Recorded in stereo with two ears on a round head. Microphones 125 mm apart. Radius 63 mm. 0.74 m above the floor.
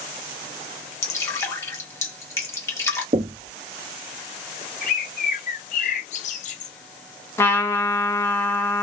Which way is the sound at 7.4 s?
20° left (ahead or behind).